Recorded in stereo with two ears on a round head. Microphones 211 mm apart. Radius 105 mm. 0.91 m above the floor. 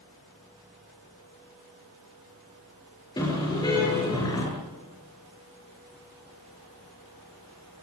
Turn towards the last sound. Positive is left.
turn(degrees=15)  # may be behind; listen again after turning